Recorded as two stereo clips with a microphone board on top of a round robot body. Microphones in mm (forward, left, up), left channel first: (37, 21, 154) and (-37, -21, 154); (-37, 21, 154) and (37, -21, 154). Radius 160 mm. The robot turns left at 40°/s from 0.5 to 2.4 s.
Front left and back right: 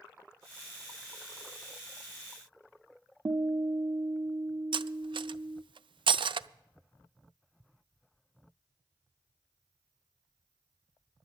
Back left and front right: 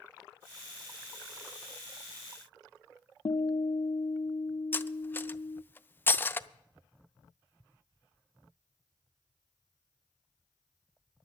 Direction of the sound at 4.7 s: 145° right.